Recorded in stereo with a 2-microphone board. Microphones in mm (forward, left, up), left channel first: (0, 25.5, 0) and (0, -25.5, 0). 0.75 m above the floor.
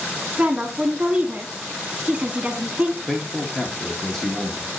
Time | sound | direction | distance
0.4 | a woman speaking | 20° right (ahead or behind) | 1.3 m
3.1 | a man speaking | 10° left (ahead or behind) | 1.1 m